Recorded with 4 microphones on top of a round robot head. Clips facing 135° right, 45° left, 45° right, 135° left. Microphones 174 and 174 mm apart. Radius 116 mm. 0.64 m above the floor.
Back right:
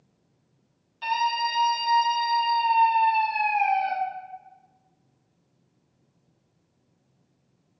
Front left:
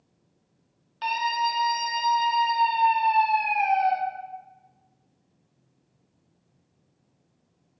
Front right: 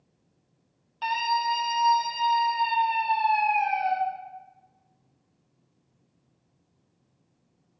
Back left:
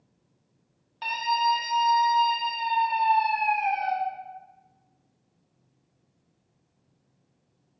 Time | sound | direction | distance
1.0 | a scream | 55° left | 2.5 m